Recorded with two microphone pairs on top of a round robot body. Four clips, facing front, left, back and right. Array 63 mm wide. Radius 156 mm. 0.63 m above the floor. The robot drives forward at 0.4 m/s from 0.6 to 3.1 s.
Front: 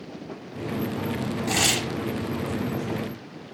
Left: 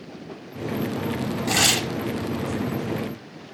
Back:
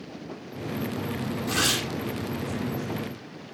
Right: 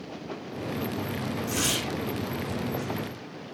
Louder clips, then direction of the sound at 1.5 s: Left 9 dB, front 1 dB; 75° left.